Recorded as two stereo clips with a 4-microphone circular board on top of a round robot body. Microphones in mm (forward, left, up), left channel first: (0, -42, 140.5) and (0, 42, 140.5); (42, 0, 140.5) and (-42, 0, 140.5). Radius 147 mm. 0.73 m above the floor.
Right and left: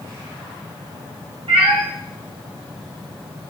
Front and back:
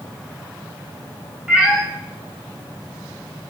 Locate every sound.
1.5 s a cat meowing: 100° left, 3.5 m